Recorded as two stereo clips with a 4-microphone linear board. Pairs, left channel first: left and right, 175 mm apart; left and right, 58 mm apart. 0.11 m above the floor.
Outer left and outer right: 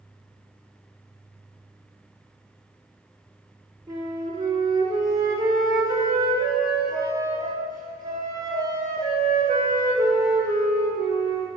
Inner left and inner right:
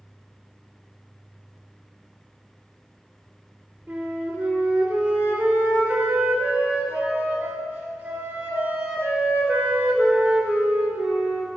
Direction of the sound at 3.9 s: 20° right (ahead or behind).